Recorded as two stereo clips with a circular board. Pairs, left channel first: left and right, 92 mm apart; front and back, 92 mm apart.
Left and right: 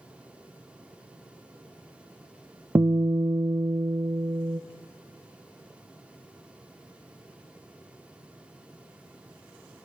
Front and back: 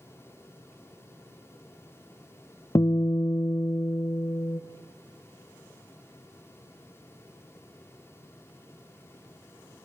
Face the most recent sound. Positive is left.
turn(degrees=-40)